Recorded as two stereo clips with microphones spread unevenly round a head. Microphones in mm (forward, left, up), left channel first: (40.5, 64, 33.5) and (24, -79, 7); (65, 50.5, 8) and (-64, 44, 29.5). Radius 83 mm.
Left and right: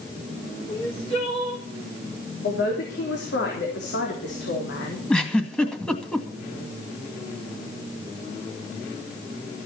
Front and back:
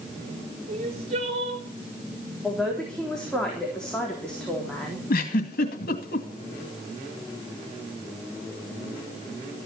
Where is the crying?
145° left, 4 m.